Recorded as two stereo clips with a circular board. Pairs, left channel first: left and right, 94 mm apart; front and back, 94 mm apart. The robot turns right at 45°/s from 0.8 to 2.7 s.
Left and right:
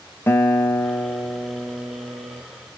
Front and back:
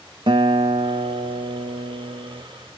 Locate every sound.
0.3 s a guitar: 155° left, 0.8 m; by 2.4 s 130° right, 0.8 m